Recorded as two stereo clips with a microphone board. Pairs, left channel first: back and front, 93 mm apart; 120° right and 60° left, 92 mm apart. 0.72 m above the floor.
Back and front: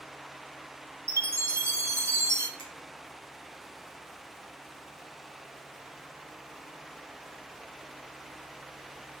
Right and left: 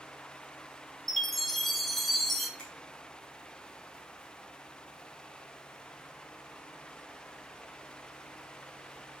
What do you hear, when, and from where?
1.1 s a chime: 30° right, 0.8 m
2.6 s a finger snap: 165° left, 3 m